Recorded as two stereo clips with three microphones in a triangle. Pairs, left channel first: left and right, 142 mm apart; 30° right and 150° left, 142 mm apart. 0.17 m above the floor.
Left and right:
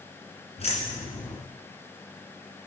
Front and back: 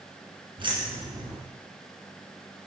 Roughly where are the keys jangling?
Left.